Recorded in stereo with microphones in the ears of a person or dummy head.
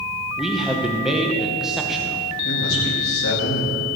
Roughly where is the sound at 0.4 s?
Centre.